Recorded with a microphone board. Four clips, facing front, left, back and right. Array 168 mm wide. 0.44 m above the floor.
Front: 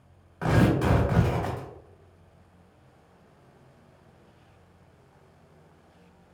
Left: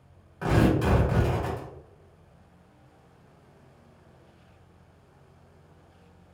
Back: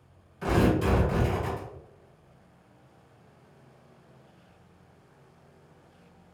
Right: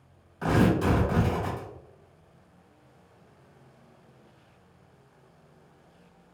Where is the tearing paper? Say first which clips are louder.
Even, front 1 dB; 20° left, 1.9 m.